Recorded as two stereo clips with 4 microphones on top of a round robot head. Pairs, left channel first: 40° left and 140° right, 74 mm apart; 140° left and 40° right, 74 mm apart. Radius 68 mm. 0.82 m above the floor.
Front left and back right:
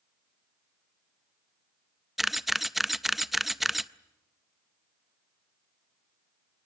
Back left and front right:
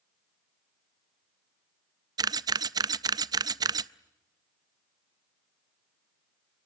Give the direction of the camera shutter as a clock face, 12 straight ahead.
2 o'clock.